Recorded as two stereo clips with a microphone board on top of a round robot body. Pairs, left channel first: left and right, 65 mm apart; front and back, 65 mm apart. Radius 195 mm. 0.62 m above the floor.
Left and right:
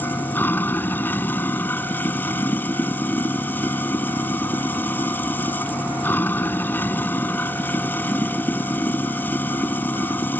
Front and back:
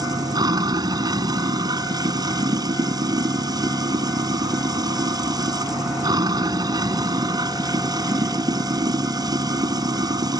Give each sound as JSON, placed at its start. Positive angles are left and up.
{"t": 0.0, "sound": "running water", "azimuth_deg": 155}